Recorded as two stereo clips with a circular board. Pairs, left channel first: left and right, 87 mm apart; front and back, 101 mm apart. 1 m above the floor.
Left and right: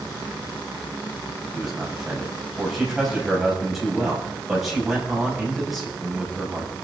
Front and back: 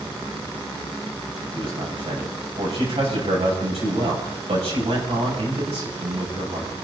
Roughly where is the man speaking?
Behind.